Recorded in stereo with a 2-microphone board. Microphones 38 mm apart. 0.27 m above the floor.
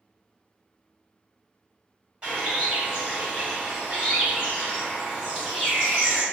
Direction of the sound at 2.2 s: 30° right (ahead or behind).